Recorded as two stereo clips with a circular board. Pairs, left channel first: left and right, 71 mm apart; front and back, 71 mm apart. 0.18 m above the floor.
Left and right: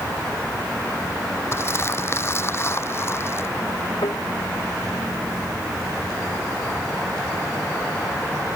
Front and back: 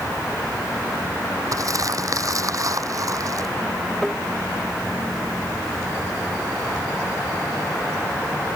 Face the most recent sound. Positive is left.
turn(degrees=90)